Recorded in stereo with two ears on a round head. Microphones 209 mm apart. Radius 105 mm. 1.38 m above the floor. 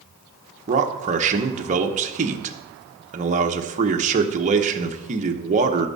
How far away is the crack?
I don't hear a crack.